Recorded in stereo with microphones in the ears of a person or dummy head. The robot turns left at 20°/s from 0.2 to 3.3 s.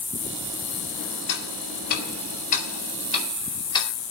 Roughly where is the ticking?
Left.